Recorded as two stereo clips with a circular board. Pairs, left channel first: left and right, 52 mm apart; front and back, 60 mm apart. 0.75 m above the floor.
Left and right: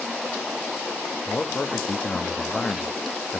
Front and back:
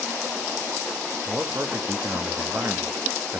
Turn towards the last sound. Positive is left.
turn(degrees=145)